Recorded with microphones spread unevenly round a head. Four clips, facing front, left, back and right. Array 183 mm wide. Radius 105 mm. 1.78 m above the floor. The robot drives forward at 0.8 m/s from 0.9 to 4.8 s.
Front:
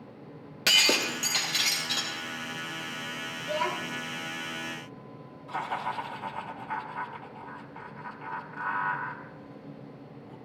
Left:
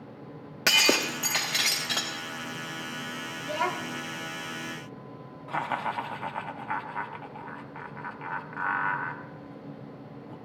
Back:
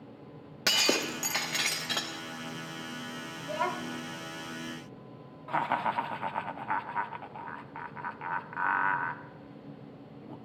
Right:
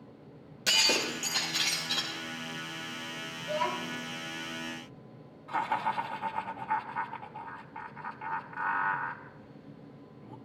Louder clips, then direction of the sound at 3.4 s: Left 2 dB, front 2 dB; 95° left.